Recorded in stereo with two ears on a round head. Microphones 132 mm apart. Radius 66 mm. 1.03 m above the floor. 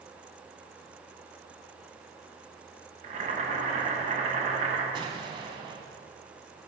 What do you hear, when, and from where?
3.0 s boiling: 45° right (ahead or behind), 1.2 m
4.9 s an explosion: 35° right (ahead or behind), 1.1 m